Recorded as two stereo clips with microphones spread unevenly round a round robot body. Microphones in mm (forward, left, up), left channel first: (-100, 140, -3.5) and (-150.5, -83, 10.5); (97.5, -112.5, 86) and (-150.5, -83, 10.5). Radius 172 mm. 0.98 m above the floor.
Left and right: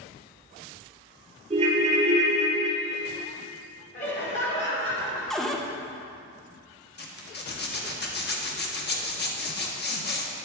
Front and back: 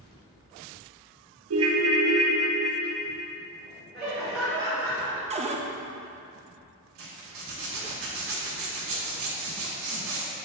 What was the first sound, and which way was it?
A ringtone, 160° right.